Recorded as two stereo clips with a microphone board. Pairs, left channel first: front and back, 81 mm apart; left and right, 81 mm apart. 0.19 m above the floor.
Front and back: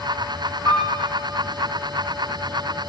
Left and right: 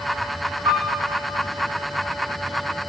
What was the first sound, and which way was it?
A piano, 55° right.